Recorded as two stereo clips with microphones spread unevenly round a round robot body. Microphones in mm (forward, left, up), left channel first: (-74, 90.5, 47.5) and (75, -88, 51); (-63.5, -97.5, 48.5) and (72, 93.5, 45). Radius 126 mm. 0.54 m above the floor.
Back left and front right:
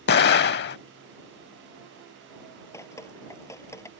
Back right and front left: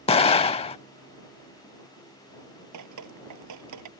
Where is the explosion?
170° left.